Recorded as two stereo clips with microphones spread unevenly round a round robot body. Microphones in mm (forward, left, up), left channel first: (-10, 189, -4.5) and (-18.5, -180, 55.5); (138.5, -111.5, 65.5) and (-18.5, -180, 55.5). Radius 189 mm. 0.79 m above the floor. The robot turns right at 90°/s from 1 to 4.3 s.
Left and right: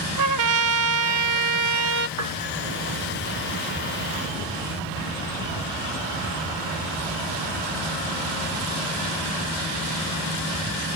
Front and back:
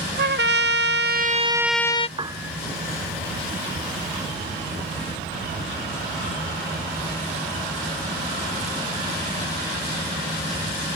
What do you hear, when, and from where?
0.2 s a trumpet: 130° right; by 2.1 s 35° right
2.2 s a piano: 95° right; by 2.6 s 60° right